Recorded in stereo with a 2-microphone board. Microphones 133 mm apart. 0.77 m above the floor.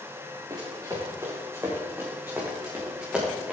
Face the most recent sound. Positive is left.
turn(degrees=-5)  # may be behind; listen again after turning